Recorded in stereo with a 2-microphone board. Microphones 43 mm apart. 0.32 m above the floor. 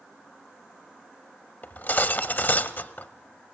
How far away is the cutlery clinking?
About 0.7 m.